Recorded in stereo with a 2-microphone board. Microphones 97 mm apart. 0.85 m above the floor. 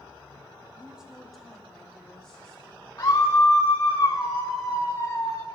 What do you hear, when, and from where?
0.8 s a woman speaking: 10° right (ahead or behind), 1.0 m; by 2.9 s 10° left (ahead or behind), 3.5 m
3.0 s a scream: 35° left (ahead or behind), 1.1 m